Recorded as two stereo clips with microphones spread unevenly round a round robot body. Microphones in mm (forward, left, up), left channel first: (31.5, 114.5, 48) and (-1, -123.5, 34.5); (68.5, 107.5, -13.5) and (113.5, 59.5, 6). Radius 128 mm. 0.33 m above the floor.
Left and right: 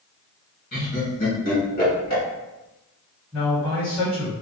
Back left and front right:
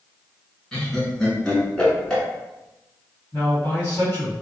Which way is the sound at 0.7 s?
90° left.